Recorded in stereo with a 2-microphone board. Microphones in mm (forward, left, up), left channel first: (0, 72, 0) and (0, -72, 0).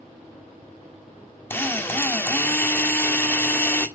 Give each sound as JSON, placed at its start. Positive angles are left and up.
{"t": 1.5, "sound": "a drill", "side_deg": 15, "distance_m": 1.6}